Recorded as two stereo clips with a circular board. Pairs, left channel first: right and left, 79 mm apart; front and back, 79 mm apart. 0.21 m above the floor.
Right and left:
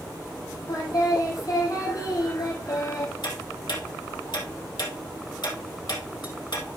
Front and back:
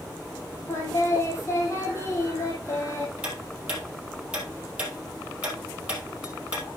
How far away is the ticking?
About 3.5 m.